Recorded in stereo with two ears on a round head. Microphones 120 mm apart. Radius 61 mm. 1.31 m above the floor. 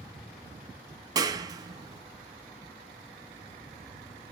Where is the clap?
30° right (ahead or behind), 1.2 m.